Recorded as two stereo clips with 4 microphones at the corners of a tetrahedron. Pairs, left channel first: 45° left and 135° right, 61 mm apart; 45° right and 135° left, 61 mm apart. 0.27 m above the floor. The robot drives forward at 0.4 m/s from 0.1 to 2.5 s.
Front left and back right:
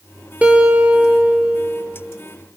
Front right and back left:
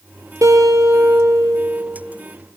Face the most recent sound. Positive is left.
turn(degrees=160)